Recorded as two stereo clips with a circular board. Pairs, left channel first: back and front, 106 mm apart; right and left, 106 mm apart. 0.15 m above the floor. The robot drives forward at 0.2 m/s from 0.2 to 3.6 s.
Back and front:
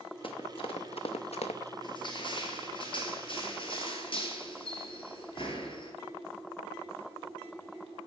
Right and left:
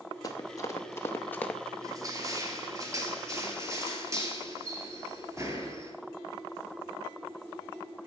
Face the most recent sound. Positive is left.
turn(degrees=150)